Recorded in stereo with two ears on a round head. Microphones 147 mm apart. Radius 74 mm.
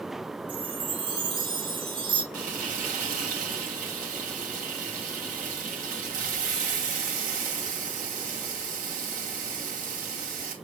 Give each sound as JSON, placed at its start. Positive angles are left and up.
{"t": 0.5, "sound": "a chime", "side_deg": -35, "distance_m": 1.4}
{"t": 2.3, "sound": "frying", "side_deg": -50, "distance_m": 2.5}